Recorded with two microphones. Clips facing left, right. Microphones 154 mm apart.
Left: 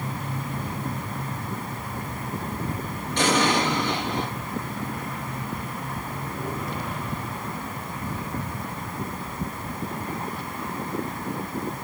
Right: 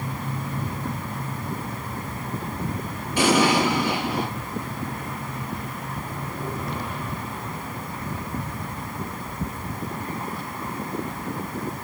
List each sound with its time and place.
3.2 s an explosion: 10° right (ahead or behind), 4 m